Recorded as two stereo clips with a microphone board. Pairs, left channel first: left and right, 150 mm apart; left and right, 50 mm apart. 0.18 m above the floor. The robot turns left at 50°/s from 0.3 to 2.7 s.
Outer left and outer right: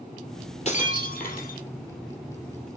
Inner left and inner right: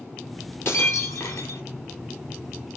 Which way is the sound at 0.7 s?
130° left.